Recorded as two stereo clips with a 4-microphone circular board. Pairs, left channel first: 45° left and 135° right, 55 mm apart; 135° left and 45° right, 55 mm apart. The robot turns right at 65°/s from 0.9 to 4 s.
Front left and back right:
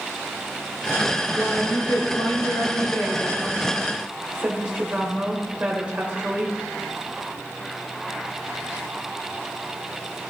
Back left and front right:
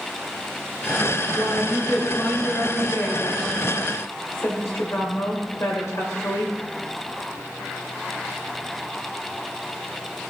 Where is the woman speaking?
10° right, 2 m; by 6.5 s 160° left, 2 m.